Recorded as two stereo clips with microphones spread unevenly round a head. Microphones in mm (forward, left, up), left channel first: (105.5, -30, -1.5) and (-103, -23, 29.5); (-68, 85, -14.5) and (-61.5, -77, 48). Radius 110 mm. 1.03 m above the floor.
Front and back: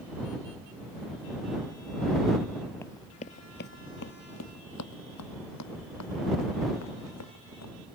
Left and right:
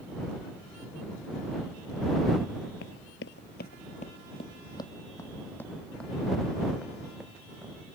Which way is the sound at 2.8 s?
85° left.